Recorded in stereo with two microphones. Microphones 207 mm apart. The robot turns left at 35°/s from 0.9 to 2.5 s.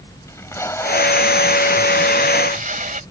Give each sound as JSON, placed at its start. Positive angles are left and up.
{"t": 0.3, "sound": "tape being pulled", "azimuth_deg": 15}